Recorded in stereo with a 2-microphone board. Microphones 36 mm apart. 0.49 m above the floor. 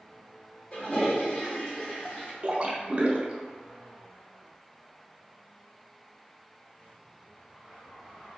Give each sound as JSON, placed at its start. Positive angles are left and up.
{"t": 0.7, "sound": "a toilet flushing", "side_deg": 30, "distance_m": 1.4}
{"t": 2.4, "sound": "a splash", "side_deg": -40, "distance_m": 0.5}